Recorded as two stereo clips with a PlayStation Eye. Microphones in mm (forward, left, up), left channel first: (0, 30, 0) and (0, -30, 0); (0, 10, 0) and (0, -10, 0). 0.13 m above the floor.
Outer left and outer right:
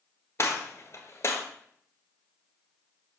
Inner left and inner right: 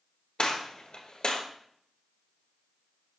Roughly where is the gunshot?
Left.